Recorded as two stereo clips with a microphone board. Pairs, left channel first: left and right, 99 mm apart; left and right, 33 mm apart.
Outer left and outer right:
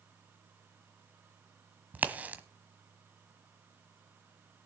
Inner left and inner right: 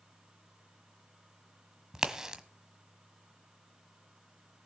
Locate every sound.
1.9 s a crack: 15° right (ahead or behind), 1.3 m